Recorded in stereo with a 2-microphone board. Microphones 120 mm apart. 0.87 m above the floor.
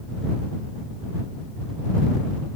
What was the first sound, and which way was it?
Only background noise.